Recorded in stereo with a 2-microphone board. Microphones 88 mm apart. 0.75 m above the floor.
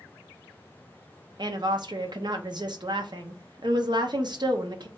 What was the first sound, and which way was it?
A woman speaking, 55° right (ahead or behind).